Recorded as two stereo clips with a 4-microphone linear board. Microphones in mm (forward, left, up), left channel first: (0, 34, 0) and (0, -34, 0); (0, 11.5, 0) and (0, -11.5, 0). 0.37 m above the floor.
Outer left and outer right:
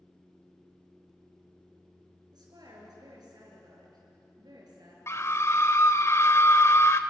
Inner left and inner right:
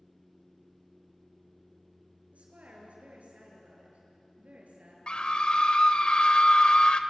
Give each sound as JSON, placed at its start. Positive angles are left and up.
{"t": 2.3, "sound": "a woman speaking", "side_deg": -80, "distance_m": 7.5}
{"t": 5.1, "sound": "a scream", "side_deg": 45, "distance_m": 1.1}